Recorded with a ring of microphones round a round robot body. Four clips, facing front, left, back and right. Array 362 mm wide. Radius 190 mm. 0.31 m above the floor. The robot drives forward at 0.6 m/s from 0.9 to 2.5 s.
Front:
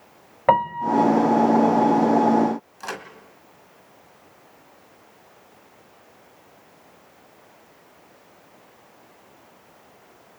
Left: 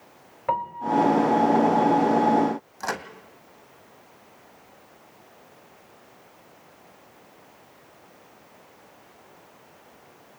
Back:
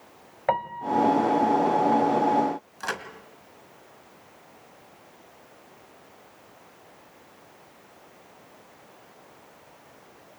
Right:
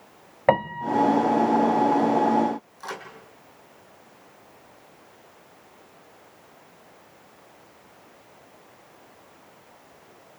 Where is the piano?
60° right, 0.6 m; by 1.1 s 70° right, 0.5 m.